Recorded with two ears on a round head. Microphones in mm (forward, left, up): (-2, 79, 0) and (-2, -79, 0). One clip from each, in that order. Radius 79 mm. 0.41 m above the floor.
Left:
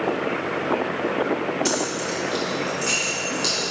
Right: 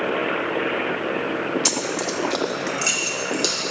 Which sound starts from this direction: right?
Keys jangling, at 1.6 s.